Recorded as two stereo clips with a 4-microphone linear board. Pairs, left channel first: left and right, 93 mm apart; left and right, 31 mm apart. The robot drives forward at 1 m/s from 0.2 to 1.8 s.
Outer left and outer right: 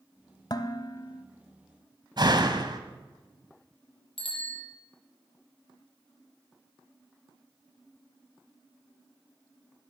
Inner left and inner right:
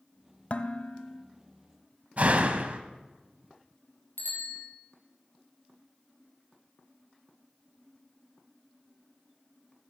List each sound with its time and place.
0.5 s dishes clattering: 45° left (ahead or behind), 1.1 m; by 1.2 s 40° left (ahead or behind), 1.2 m
2.2 s a door slam: 50° right (ahead or behind), 1.5 m
4.2 s a bicycle bell: 80° left, 4.5 m